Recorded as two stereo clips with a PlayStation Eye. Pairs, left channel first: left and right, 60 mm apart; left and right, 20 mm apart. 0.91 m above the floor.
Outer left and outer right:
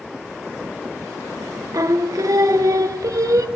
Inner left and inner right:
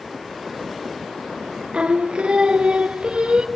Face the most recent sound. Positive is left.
turn(degrees=-70)  # may be behind; listen again after turning